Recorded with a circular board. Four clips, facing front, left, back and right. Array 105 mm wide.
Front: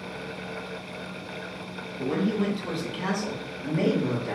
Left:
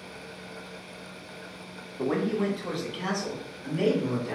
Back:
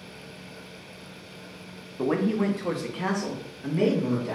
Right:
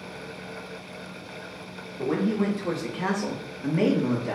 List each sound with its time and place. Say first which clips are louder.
2.0 s a man speaking: right 2 dB, back 2 dB; 165° left, 0.8 m; by 4.4 s 85° right, 1.1 m